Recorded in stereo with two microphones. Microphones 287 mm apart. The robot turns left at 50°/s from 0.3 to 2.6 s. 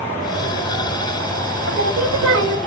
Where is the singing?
55° right, 1.4 m; by 2.6 s 100° right, 1.4 m.